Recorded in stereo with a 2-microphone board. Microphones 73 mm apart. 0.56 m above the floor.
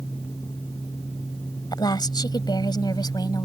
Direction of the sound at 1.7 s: 75° left (ahead or behind).